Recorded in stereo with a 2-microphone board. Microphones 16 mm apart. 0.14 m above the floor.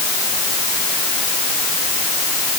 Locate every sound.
Only background noise.